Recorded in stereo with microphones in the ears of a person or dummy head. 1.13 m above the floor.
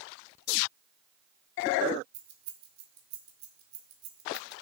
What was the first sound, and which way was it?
Keys jangling, 60° right (ahead or behind).